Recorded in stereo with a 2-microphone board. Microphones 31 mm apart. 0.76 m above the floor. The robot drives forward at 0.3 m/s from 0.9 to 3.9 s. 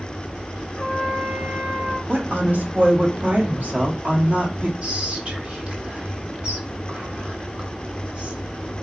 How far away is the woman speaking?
About 1.1 m.